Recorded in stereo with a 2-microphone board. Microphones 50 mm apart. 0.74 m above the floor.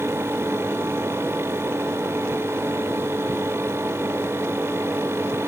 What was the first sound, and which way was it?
Only background noise.